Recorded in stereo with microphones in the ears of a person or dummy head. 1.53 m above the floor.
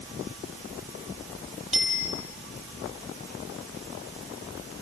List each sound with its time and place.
1.7 s a bicycle bell: 5° right (ahead or behind), 6 m